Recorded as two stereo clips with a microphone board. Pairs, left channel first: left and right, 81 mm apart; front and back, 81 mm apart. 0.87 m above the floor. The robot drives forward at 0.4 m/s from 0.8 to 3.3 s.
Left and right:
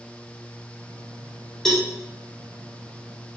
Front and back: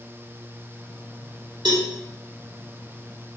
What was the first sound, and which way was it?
A cowbell, 175° left.